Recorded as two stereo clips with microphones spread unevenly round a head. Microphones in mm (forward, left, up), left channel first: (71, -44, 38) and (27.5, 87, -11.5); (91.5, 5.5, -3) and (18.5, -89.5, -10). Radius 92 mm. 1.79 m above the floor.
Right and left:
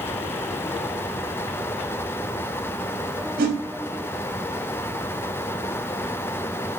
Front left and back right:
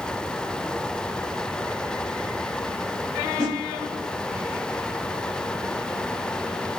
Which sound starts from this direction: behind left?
A whoosh, at 3.4 s.